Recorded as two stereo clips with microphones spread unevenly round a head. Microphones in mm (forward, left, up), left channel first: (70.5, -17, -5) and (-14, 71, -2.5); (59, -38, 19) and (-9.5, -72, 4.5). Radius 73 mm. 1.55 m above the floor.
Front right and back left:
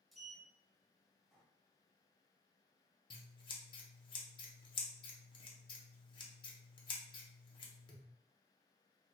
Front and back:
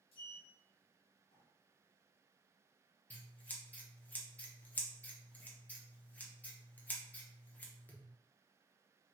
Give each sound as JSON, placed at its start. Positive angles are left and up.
{"t": 0.1, "sound": "a sliding door", "azimuth_deg": 45, "distance_m": 0.7}
{"t": 3.1, "sound": "scissors", "azimuth_deg": -20, "distance_m": 0.8}